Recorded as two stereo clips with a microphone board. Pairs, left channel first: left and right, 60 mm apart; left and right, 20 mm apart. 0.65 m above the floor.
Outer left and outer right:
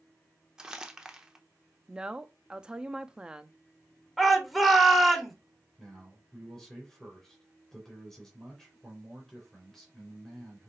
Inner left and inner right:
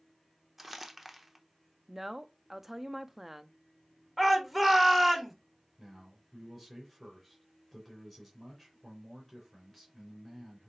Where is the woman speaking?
15° right (ahead or behind), 0.6 m.